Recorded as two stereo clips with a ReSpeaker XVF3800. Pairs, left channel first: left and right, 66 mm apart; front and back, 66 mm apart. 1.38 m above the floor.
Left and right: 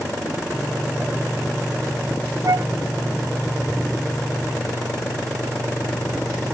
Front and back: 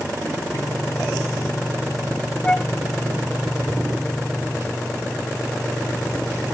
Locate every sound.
2.4 s a flute: 70° right